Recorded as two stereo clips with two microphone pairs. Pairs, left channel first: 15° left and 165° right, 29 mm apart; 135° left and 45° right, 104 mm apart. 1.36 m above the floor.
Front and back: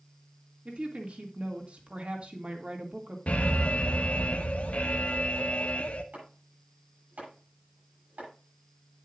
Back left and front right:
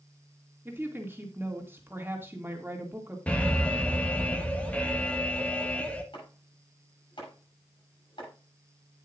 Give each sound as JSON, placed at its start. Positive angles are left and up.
{"t": 0.7, "sound": "a woman speaking", "azimuth_deg": -115, "distance_m": 2.0}
{"t": 3.3, "sound": "an alarm", "azimuth_deg": 55, "distance_m": 1.3}
{"t": 6.1, "sound": "chopping", "azimuth_deg": 170, "distance_m": 7.5}